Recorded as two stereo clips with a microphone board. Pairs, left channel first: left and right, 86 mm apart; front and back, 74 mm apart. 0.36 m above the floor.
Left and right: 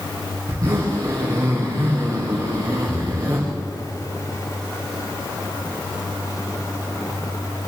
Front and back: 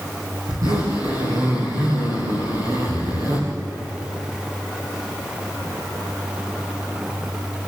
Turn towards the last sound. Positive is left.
turn(degrees=-140)